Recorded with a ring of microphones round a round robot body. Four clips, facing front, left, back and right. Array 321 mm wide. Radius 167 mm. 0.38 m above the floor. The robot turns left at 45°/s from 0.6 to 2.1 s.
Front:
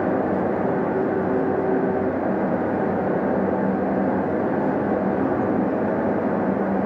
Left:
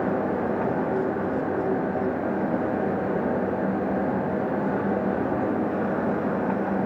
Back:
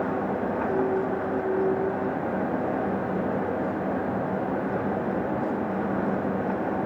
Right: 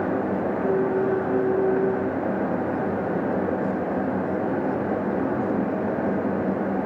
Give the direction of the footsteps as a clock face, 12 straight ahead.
I don't hear footsteps.